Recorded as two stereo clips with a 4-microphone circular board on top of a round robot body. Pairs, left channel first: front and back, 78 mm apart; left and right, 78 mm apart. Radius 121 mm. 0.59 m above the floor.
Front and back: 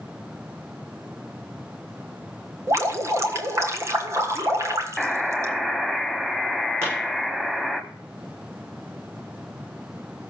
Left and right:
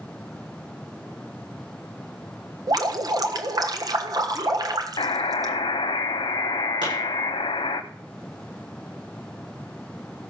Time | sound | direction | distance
2.7 | dripping | 125° right | 1.3 m
5.0 | a buzzer | 95° left | 0.9 m
6.8 | a pop | 120° right | 8 m